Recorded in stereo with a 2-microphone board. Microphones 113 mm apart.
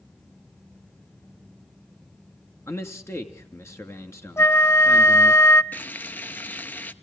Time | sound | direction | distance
2.7 | a man speaking | 25° left (ahead or behind) | 2.5 m
4.4 | a flute | 25° left (ahead or behind) | 0.6 m
5.7 | frying | 15° left (ahead or behind) | 0.9 m